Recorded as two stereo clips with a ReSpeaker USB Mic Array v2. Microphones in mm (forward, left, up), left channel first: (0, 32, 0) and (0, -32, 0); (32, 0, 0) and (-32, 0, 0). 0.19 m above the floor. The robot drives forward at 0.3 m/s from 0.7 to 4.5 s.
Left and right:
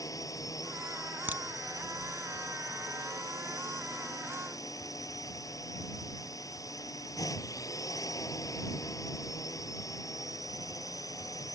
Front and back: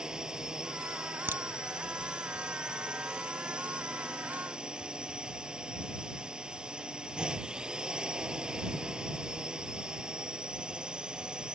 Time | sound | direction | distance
0.0 | a drone | 100° left | ?
1.3 | a crack | 140° right | ?